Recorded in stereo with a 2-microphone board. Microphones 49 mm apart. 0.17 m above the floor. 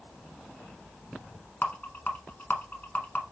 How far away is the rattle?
About 1.0 m.